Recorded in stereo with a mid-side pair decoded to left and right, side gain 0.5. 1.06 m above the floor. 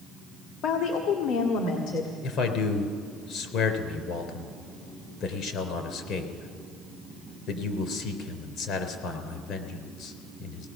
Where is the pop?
No pop in this recording.